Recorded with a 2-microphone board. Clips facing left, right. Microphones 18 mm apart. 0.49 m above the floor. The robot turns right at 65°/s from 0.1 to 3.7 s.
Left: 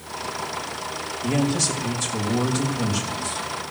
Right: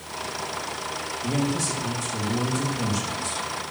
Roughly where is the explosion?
I don't hear an explosion.